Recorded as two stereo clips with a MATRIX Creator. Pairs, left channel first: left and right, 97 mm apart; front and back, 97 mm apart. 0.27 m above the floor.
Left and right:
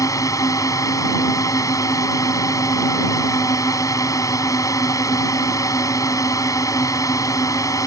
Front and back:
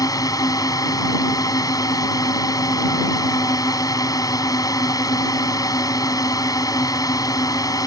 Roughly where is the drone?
Ahead left.